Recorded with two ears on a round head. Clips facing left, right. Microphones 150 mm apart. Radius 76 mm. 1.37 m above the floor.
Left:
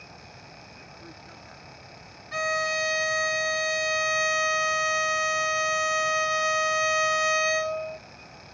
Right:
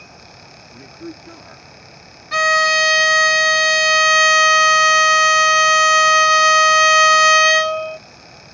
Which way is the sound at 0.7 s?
80° right.